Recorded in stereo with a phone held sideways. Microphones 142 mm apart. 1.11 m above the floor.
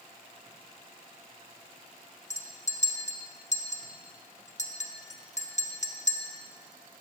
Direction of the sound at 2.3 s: 50° left (ahead or behind).